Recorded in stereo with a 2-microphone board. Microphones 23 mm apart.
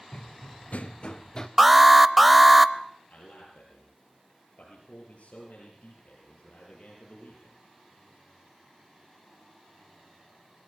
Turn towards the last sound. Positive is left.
turn(degrees=75)  # may be behind; listen again after turning